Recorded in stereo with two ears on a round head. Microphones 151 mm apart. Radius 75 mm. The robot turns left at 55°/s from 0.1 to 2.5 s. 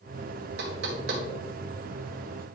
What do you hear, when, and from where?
0.6 s knocking: 70° right (ahead or behind), 1.9 m; by 1.2 s 65° right (ahead or behind), 1.9 m